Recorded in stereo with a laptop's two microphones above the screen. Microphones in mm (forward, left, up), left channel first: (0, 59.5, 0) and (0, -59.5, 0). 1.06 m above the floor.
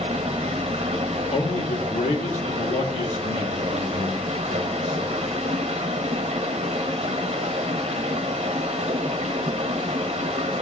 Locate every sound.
0.0 s running water: 70° right (ahead or behind), 1.1 m
1.3 s a man speaking: 85° left, 1.7 m